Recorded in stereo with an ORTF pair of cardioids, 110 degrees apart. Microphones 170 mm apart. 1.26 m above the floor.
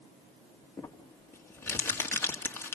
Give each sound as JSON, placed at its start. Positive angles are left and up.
{"t": 0.8, "sound": "crumpling", "azimuth_deg": 15, "distance_m": 1.8}